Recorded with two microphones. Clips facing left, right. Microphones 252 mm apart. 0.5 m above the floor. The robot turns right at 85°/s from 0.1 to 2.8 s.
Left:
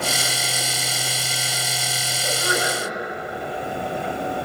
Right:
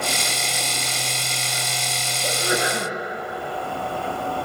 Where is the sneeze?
150° right, 7 m; by 2.9 s 100° right, 7 m.